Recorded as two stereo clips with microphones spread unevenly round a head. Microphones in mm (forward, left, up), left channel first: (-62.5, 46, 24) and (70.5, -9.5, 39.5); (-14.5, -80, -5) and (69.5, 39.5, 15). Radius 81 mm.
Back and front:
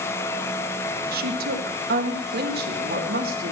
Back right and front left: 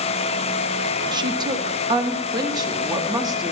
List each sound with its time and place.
1.1 s a woman speaking: 10° right, 1.3 m